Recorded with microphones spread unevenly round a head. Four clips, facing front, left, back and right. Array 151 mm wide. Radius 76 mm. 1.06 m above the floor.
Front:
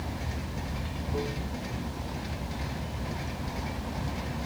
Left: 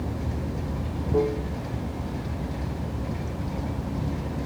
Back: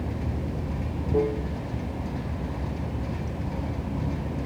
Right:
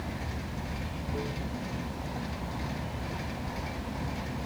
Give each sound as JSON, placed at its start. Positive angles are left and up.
{"t": 0.0, "sound": "running water", "azimuth_deg": 135}